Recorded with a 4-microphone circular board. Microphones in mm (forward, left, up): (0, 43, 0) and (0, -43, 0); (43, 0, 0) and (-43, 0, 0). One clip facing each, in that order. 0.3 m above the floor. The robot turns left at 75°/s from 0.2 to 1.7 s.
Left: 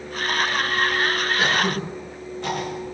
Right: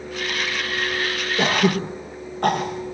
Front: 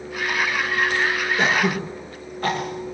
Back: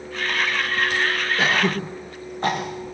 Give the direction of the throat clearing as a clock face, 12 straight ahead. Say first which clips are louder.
Right 6 dB, even; 3 o'clock.